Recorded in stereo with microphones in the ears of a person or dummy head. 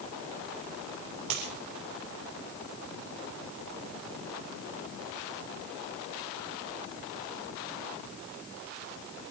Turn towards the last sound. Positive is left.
turn(degrees=-75)  # may be behind; listen again after turning